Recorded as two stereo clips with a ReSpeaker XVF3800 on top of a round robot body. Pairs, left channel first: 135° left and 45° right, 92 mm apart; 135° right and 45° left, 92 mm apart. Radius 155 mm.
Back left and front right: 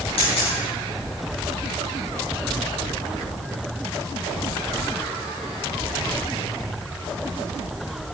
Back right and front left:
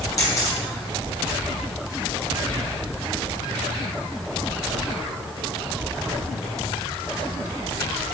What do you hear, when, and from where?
0.2 s a camera shutter: 165° left, 4.5 m